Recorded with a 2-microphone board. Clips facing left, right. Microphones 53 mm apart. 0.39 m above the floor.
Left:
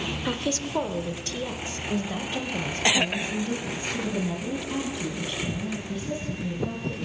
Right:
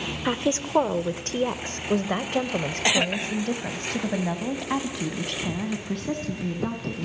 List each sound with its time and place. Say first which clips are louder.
0.2 s a woman speaking: right 5 dB; 25° right (ahead or behind), 1.1 m; by 7.1 s 70° right (ahead or behind), 4 m